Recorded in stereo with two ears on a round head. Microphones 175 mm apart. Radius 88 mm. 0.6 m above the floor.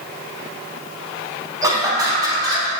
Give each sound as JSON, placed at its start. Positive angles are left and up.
{"t": 1.6, "sound": "laughter", "side_deg": -20, "distance_m": 3.5}